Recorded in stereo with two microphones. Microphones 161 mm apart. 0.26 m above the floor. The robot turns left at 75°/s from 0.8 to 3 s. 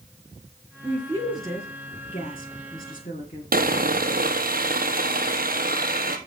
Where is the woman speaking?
40° right (ahead or behind), 4 m; by 3.4 s 55° left (ahead or behind), 4 m.